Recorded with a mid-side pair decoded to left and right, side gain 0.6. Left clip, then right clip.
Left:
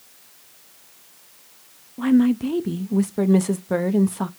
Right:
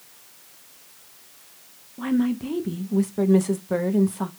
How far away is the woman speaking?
About 0.5 m.